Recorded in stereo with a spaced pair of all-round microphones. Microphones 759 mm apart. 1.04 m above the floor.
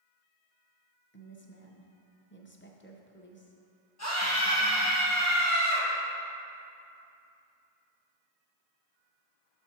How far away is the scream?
About 1.4 m.